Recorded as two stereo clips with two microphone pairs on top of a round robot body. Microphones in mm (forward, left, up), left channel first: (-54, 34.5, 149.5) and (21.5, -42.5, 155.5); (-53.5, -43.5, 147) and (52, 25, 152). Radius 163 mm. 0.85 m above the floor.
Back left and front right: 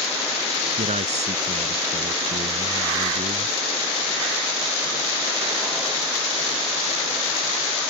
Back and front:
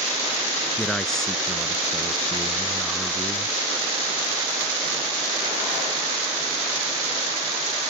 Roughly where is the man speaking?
Ahead right.